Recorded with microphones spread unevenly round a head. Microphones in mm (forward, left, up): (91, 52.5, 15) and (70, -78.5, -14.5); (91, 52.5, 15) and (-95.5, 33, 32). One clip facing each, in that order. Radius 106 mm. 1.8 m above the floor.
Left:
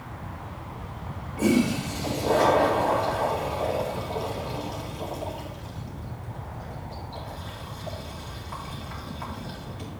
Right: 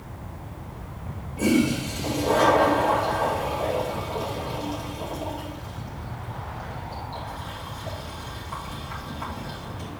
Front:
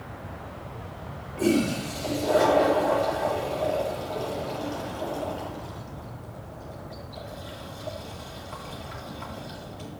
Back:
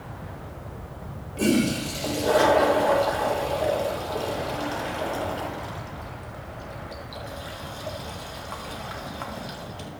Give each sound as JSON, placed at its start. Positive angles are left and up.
{"t": 1.4, "sound": "a toilet flushing", "azimuth_deg": 180, "distance_m": 1.7}